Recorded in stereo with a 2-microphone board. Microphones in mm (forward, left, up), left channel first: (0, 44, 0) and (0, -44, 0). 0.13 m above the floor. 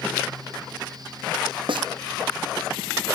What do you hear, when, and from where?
1.7 s a snare drum: 65° right (ahead or behind)